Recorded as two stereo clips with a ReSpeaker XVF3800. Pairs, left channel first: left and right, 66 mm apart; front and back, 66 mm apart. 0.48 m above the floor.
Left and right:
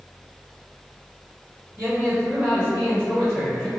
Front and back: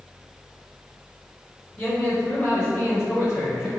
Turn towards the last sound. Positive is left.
turn(degrees=0)